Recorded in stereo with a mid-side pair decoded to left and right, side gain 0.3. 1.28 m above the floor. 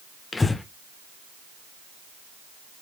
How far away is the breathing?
About 0.7 m.